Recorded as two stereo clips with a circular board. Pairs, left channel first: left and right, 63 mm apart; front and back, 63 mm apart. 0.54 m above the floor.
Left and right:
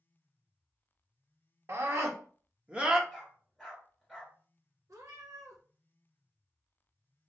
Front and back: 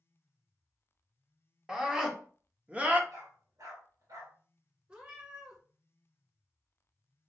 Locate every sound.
1.7 s a scream: 100° right, 1.0 m; by 3.0 s 155° right, 0.7 m
3.1 s a dog barking: 175° right, 2.0 m
4.9 s a cat meowing: 110° right, 1.4 m